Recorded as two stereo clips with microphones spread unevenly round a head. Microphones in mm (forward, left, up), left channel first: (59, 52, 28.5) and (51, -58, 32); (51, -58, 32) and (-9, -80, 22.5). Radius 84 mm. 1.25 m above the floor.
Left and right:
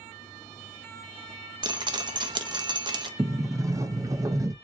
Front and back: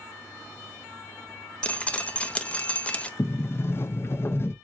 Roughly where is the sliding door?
Ahead right.